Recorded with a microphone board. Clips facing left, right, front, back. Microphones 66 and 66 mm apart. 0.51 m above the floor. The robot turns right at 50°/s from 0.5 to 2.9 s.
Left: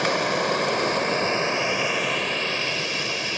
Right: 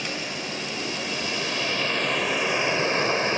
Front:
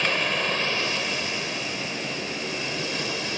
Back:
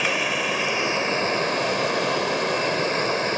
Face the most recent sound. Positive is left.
turn(degrees=-140)